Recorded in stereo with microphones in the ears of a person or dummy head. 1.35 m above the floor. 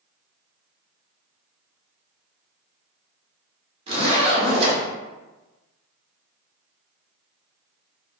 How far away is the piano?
No piano in this recording.